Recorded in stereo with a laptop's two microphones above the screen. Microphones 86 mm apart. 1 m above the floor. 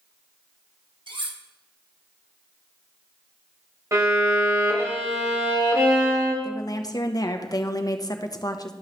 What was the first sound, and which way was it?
Cutlery clinking, 70° right (ahead or behind).